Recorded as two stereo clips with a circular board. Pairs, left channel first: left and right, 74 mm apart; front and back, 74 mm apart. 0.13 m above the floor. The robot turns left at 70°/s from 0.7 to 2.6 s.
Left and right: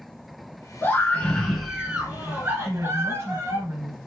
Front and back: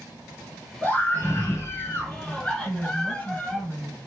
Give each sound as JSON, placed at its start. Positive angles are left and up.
{"t": 0.8, "sound": "a scream", "azimuth_deg": 55, "distance_m": 1.4}
{"t": 2.6, "sound": "a woman speaking", "azimuth_deg": -55, "distance_m": 1.5}